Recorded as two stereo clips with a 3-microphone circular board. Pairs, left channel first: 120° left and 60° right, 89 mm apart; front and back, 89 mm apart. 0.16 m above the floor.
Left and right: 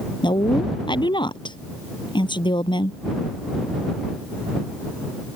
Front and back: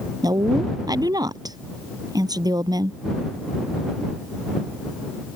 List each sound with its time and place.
0.2 s a woman speaking: 140° left